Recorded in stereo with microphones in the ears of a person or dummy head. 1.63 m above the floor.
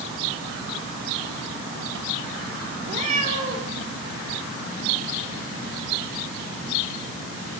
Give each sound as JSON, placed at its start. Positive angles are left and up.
{"t": 2.9, "sound": "a cat meowing", "side_deg": -45, "distance_m": 3.5}